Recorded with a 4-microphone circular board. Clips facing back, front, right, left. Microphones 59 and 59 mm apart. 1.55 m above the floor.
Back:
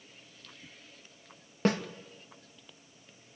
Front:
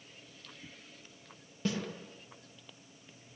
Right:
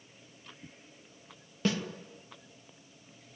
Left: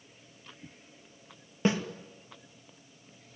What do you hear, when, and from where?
1.6 s a snare drum: 155° left, 2.5 m